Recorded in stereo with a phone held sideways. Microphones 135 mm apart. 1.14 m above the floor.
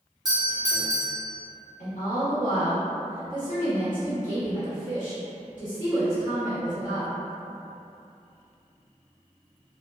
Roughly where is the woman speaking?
Left.